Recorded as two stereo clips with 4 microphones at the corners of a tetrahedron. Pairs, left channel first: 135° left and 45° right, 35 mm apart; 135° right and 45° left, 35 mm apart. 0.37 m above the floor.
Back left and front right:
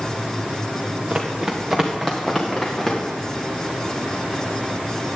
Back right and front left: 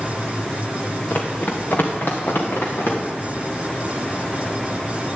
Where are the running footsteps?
95° right, 2 m; by 3.0 s 145° right, 3.5 m.